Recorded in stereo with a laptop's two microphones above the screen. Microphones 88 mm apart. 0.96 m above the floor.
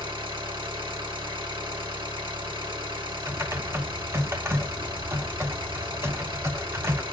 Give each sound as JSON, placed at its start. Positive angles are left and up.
{"t": 0.0, "sound": "an engine running", "side_deg": -85, "distance_m": 2.5}
{"t": 3.3, "sound": "typing on a keyboard", "side_deg": -30, "distance_m": 0.6}